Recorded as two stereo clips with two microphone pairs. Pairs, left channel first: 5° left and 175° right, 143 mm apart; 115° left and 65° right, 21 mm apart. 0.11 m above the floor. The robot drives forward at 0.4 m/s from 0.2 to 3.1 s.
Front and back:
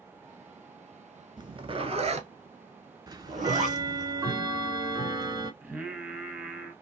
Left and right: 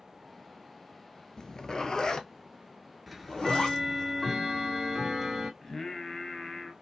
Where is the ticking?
150° right, 0.6 m.